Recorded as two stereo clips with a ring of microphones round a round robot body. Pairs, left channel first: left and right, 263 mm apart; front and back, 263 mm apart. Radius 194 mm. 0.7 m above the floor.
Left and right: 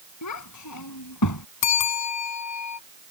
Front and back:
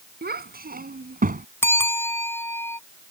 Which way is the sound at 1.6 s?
80° left.